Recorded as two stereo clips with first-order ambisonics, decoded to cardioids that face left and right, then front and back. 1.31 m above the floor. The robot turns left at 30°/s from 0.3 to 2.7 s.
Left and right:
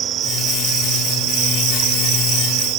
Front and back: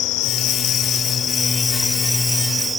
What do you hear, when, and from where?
0.0 s an insect: 35° right; by 2.8 s 105° right